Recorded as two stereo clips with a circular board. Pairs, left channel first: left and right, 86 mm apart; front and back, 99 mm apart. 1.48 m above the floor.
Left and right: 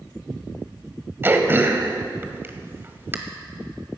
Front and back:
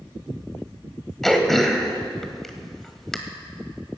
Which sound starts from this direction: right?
Throat clearing, at 1.2 s.